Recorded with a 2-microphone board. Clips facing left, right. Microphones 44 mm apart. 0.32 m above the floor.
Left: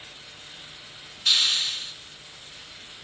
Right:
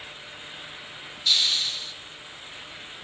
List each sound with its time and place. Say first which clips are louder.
1.2 s a hiss: left 1 dB; 65° left (ahead or behind), 3 m